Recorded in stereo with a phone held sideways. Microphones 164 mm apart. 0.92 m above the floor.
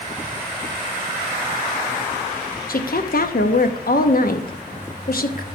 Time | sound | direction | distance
2.7 | a woman speaking | 65° left (ahead or behind) | 0.8 m